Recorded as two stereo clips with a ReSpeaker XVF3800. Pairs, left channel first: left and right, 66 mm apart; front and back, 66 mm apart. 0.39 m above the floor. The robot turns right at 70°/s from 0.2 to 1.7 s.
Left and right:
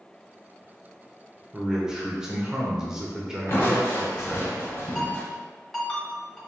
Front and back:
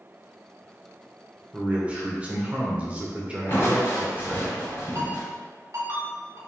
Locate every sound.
1.5 s a man speaking: 170° right, 0.8 m; by 4.5 s 160° right, 0.8 m
3.5 s crushing: 45° left, 1.2 m
5.0 s a ringtone: 175° left, 1.3 m